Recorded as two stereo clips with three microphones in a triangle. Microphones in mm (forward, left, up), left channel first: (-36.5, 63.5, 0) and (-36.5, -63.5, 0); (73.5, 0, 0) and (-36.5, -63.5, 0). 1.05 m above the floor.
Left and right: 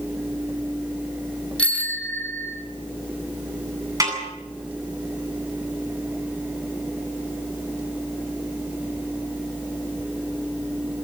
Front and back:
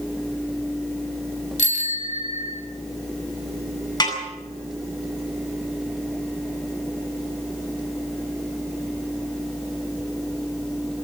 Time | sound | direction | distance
1.6 | a bicycle bell | 10° left | 2.5 m
4.0 | a snare drum | 30° right | 9 m